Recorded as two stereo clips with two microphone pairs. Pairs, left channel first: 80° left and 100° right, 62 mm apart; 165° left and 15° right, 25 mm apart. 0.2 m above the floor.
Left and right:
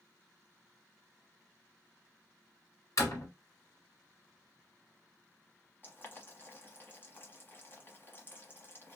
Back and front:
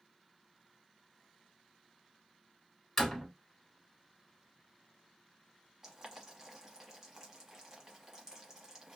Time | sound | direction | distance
3.0 | a door slam | 85° left | 1.7 m
5.8 | boiling | 45° left | 1.1 m